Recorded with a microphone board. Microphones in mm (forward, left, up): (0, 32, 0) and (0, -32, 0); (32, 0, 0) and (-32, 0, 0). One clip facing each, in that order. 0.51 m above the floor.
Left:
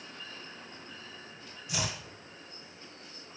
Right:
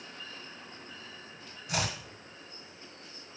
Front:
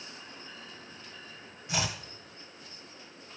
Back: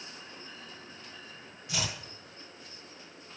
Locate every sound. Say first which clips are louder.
1.7 s chopping: right 3 dB, front 3 dB; 65° right, 1.6 m